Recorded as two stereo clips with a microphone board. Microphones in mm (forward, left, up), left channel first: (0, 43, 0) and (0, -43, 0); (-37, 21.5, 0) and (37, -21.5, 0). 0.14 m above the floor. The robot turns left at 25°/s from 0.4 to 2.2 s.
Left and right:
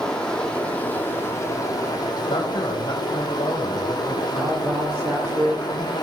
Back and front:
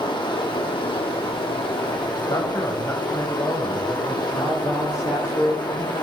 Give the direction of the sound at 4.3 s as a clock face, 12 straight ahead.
5 o'clock.